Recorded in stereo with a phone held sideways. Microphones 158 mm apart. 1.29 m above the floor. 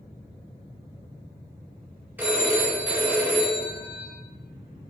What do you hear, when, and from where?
2.2 s a phone ringing: 10° right (ahead or behind), 0.7 m